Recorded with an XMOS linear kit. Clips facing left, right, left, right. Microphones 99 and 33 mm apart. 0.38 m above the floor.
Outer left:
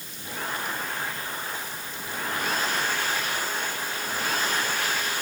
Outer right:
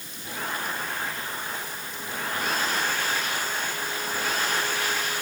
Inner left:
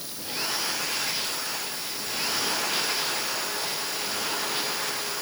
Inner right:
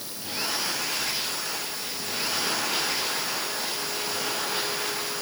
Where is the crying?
No crying in this recording.